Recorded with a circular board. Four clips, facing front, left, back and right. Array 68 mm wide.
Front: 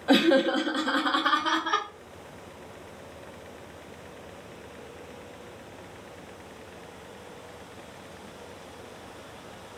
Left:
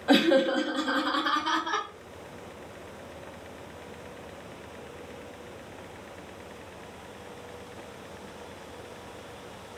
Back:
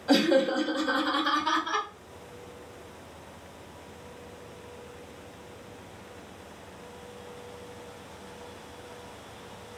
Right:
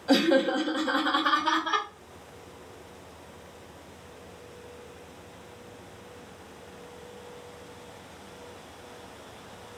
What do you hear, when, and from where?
0.1 s laughter: 50° left, 0.5 m; by 1.9 s 10° right, 1.8 m